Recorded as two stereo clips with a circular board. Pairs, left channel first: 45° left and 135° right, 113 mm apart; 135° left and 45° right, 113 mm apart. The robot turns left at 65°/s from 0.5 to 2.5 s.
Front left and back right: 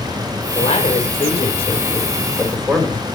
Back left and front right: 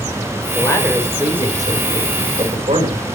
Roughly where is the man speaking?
Left.